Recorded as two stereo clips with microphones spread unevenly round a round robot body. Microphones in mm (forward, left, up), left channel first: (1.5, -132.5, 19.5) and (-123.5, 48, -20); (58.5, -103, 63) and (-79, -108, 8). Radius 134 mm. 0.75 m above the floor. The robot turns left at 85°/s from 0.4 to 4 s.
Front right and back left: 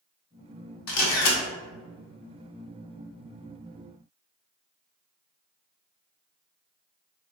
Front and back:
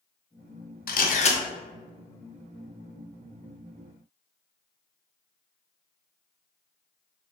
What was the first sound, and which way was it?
A camera shutter, 15° right.